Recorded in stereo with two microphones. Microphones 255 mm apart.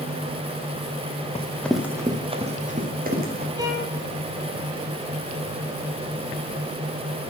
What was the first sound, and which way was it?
Running footsteps, 25° left (ahead or behind).